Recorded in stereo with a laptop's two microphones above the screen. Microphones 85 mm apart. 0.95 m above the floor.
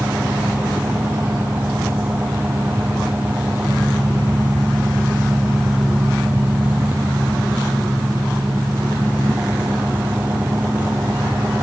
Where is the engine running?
20° right (ahead or behind).